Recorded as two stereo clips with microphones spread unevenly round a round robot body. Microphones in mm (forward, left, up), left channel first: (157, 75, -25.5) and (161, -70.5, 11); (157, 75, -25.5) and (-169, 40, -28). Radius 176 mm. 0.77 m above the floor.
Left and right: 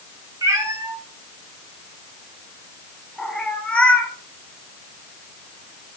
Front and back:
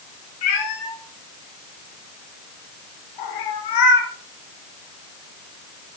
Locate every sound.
0.4 s a cat meowing: 20° right, 4 m; by 4.1 s 10° left, 2.5 m